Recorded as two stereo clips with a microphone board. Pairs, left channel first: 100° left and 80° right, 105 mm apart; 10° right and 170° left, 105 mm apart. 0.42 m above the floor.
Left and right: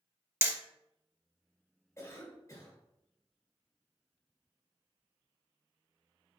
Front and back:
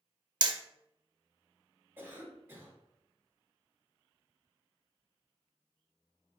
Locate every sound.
0.4 s hammering: 145° right, 0.6 m
2.0 s a cough: 120° left, 1.4 m